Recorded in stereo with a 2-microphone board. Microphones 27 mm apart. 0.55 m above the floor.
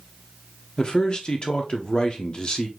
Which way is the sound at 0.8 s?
30° left (ahead or behind).